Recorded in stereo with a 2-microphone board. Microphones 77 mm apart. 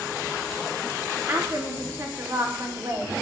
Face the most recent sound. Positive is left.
turn(degrees=-35)  # may be behind; listen again after turning